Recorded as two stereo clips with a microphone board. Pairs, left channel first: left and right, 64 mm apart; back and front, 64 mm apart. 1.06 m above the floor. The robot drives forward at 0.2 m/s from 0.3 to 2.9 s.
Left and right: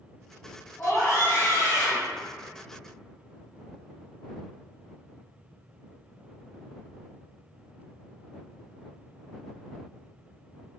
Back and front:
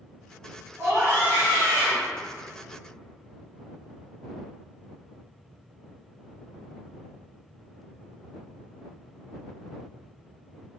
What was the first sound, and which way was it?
A scream, 45° left.